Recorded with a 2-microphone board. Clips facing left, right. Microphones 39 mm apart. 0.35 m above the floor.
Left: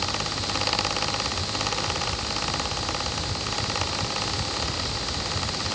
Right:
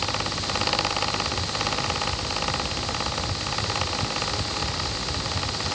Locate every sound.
Only background noise.